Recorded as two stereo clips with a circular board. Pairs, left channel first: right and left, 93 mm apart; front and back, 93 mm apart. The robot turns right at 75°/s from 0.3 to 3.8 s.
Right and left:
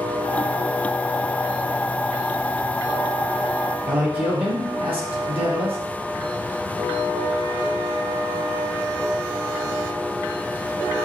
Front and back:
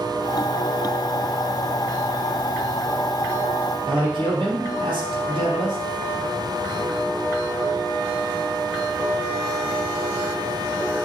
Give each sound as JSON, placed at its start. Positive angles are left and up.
{"t": 3.9, "sound": "a man speaking", "azimuth_deg": 160, "distance_m": 3.0}